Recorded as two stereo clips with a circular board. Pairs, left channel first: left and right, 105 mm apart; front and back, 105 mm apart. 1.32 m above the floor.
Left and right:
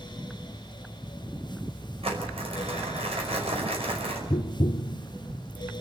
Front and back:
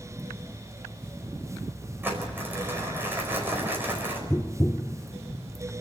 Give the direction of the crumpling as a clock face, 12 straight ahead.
4 o'clock.